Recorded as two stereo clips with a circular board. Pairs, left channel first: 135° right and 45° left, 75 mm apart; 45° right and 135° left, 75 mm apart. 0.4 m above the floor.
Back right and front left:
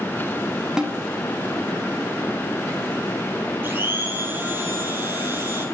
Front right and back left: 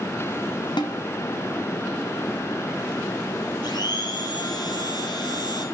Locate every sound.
0.8 s a snare drum: 35° right, 1.2 m
3.6 s a blender: 20° right, 2.5 m